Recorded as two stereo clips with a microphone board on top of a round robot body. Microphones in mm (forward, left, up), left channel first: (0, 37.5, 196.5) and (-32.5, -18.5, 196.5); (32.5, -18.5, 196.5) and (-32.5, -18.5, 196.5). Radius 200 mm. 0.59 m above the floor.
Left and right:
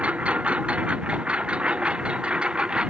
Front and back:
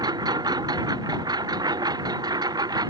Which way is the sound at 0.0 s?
170° left.